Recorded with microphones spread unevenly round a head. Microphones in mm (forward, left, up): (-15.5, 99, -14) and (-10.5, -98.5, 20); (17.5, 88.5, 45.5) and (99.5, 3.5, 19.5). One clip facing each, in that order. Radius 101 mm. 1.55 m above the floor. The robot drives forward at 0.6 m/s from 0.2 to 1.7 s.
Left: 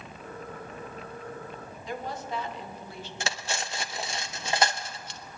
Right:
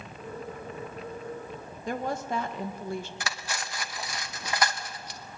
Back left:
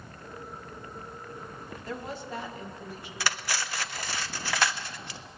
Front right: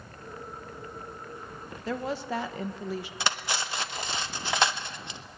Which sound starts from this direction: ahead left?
Cutlery clinking, at 3.2 s.